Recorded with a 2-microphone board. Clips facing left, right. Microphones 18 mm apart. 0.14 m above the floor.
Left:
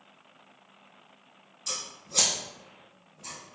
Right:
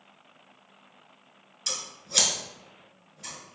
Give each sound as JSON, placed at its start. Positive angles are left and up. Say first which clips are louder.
{"t": 1.7, "sound": "scissors", "louder": "right 3 dB", "side_deg": -50, "distance_m": 0.9}